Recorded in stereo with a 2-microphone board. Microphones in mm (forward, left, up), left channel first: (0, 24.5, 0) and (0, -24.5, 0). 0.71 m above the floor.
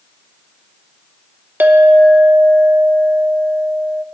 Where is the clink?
40° right (ahead or behind), 0.7 m.